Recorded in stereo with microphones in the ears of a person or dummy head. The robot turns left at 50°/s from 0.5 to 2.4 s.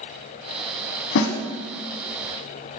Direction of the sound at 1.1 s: 65° left (ahead or behind).